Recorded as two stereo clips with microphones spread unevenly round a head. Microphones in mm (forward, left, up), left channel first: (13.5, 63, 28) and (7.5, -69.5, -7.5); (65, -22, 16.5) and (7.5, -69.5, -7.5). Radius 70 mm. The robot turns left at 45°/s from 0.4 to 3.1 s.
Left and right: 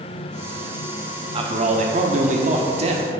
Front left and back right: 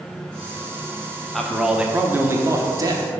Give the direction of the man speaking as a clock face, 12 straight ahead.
2 o'clock.